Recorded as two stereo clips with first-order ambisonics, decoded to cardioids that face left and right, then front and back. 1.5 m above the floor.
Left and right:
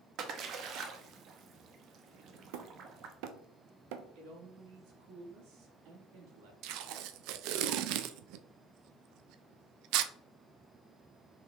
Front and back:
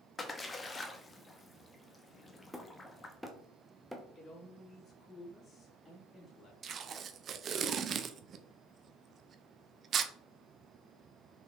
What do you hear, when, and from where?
0.2 s a splash: 70° right, 1.0 m
2.5 s hammering: 90° right, 1.0 m
4.2 s a man speaking: 70° right, 3 m
6.6 s tape being pulled: 115° right, 0.6 m